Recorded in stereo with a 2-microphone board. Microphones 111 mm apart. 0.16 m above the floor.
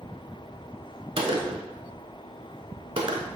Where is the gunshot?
55° right (ahead or behind), 0.7 m.